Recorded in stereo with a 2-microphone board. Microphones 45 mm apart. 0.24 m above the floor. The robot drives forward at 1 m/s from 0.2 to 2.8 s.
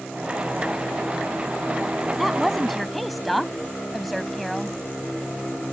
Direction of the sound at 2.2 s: Centre (ahead or behind).